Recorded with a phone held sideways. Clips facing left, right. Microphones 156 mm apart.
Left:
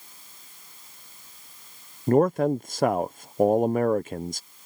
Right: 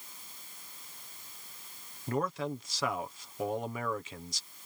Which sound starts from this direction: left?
A man speaking, at 2.1 s.